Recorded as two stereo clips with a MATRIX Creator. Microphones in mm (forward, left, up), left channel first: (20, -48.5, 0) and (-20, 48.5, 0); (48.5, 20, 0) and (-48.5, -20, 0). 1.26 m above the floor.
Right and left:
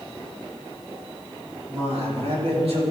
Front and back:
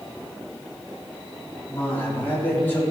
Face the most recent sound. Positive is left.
turn(degrees=90)